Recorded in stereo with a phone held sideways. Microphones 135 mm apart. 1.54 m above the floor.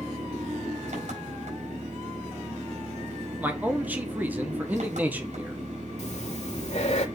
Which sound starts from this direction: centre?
A man speaking, at 3.4 s.